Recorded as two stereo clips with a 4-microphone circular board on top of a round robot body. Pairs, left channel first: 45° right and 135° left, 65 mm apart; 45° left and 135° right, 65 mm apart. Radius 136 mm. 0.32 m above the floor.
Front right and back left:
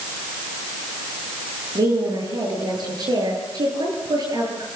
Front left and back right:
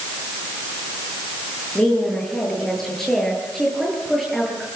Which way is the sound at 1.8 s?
125° left.